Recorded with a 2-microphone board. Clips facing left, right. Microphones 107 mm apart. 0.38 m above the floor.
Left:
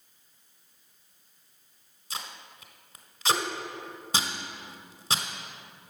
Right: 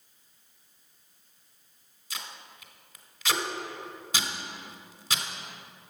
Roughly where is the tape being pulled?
Left.